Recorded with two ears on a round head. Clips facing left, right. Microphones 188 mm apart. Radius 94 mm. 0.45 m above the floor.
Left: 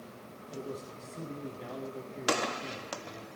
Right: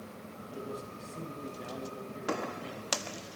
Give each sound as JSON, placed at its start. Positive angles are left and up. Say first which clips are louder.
{"t": 0.5, "sound": "a man speaking", "louder": "left 1 dB", "side_deg": -5, "distance_m": 3.5}